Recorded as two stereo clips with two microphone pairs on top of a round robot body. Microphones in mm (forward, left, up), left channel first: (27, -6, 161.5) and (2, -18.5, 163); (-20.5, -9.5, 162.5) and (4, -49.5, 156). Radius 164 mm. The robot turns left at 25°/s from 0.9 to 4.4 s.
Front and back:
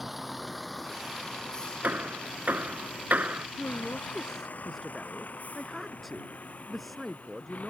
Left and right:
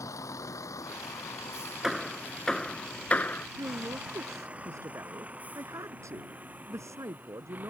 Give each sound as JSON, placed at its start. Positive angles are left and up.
{"t": 0.0, "sound": "a vehicle", "azimuth_deg": 120}
{"t": 1.8, "sound": "hammering", "azimuth_deg": -145}
{"t": 3.6, "sound": "a man speaking", "azimuth_deg": -40}